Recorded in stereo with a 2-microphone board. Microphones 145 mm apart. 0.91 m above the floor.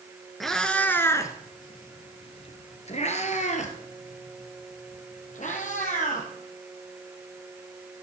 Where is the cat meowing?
Centre (ahead or behind), 1.0 m; by 6.3 s 60° left (ahead or behind), 2.5 m.